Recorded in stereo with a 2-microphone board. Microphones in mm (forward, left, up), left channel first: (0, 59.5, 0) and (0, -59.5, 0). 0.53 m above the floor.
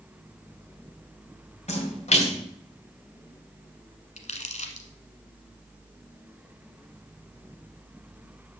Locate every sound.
1.7 s a splash: 70° left (ahead or behind), 2.5 m
4.2 s crumpling: 70° left (ahead or behind), 1.4 m